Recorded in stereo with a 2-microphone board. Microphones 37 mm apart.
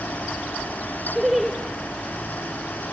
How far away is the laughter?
About 0.7 m.